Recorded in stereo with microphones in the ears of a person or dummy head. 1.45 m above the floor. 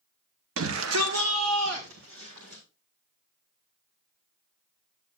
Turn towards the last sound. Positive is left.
turn(degrees=-75)  # may be behind; listen again after turning